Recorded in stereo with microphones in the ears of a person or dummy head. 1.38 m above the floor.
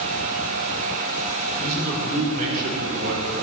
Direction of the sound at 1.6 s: 40° right (ahead or behind).